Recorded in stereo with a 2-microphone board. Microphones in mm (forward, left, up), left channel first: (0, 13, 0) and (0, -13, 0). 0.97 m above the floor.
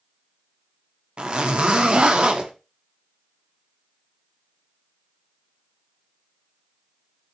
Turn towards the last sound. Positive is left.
turn(degrees=-35)  # may be behind; listen again after turning